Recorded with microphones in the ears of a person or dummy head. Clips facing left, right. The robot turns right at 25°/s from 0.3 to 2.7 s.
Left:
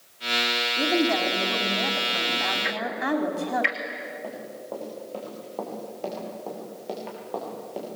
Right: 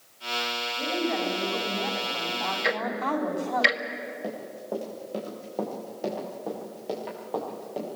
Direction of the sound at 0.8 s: 105° left.